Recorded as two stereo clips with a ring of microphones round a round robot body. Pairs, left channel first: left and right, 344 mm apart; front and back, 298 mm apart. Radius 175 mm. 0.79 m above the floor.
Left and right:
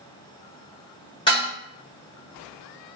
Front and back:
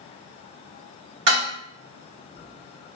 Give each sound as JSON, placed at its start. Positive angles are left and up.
{"t": 1.3, "sound": "dishes clattering", "azimuth_deg": 165, "distance_m": 1.9}